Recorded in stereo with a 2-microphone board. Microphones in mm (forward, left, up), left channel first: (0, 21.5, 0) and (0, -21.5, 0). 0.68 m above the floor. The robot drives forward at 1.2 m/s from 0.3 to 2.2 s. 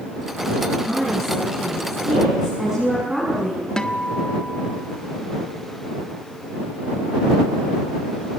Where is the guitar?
15° left (ahead or behind), 1.5 m.